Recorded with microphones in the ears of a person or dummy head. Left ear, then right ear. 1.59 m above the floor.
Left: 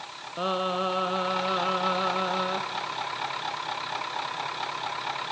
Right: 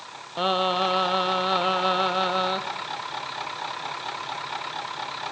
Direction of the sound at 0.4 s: 30° right (ahead or behind).